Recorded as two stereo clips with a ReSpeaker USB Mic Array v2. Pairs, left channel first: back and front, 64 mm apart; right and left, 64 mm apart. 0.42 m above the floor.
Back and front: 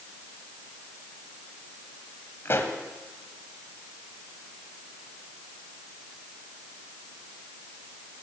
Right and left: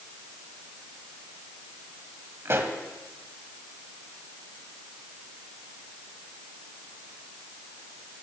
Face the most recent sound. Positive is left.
turn(degrees=135)